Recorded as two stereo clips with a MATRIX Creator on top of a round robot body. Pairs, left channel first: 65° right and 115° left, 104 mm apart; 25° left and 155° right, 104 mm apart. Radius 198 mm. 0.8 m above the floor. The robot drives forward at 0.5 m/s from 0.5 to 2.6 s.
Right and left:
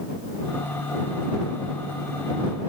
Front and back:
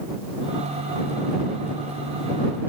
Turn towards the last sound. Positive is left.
No sound to turn to.